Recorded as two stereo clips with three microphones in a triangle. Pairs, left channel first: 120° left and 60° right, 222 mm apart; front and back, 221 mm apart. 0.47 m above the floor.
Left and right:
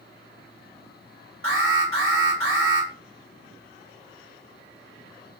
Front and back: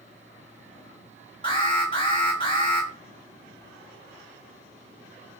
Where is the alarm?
65° right, 1.9 m.